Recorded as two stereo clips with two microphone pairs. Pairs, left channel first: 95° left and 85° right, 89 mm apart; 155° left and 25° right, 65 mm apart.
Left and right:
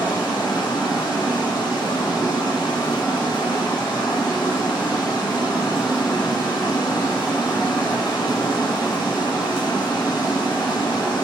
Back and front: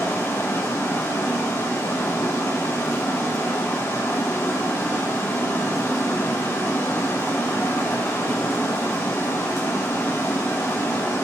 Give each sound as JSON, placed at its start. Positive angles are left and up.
{"t": 0.0, "sound": "running water", "azimuth_deg": 115, "distance_m": 3.5}